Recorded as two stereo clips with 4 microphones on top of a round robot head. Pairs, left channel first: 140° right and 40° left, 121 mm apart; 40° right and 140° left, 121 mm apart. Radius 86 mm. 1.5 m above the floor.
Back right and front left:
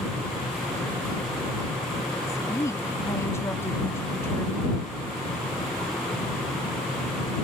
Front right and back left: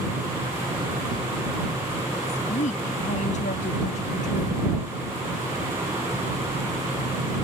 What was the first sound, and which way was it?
A woman speaking, 70° right.